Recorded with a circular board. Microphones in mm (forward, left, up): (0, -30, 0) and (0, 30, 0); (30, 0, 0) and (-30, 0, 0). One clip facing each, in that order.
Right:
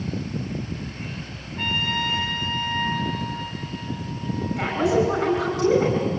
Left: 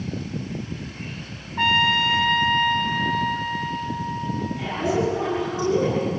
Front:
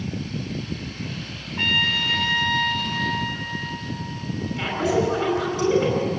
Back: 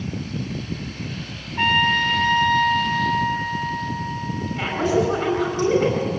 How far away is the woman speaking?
About 5.5 m.